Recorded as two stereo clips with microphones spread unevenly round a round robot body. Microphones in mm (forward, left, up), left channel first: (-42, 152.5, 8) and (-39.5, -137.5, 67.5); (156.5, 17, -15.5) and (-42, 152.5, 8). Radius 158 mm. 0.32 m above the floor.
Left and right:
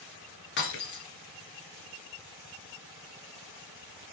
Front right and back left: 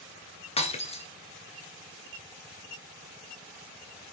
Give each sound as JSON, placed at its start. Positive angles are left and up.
{"t": 0.6, "sound": "breaking glass", "azimuth_deg": 35, "distance_m": 1.3}